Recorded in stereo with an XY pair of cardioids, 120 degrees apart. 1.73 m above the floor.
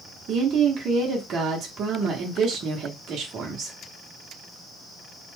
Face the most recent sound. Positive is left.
turn(degrees=-50)